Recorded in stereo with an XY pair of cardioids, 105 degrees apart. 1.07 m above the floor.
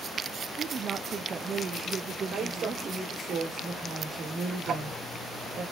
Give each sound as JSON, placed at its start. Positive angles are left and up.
{"t": 0.6, "sound": "a woman speaking", "azimuth_deg": -45, "distance_m": 0.9}
{"t": 2.3, "sound": "a woman speaking", "azimuth_deg": -55, "distance_m": 3.5}
{"t": 4.7, "sound": "ticking", "azimuth_deg": -60, "distance_m": 4.5}